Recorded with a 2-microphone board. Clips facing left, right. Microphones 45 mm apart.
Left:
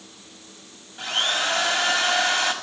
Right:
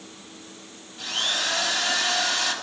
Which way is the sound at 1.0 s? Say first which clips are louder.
Left 3 dB; 45° left (ahead or behind).